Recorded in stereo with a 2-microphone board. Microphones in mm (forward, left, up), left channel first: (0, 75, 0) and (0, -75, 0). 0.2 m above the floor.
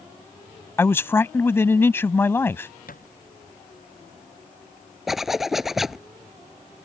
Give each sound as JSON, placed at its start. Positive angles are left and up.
{"t": 0.8, "sound": "a man speaking", "side_deg": 15}
{"t": 2.9, "sound": "a thud", "side_deg": 70}
{"t": 5.1, "sound": "a zipper", "side_deg": 0}